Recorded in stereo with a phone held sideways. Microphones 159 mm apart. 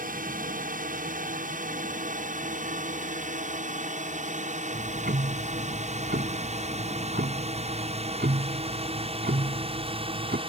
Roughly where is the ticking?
Right.